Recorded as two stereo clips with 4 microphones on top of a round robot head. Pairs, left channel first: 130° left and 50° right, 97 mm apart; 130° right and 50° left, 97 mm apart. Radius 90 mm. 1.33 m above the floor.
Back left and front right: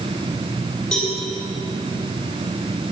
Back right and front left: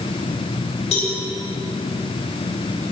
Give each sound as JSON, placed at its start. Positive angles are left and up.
{"t": 0.9, "sound": "a cowbell", "azimuth_deg": -145, "distance_m": 6.5}